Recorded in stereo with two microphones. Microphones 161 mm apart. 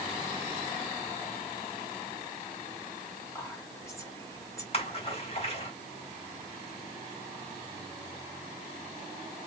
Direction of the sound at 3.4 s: 20° left (ahead or behind).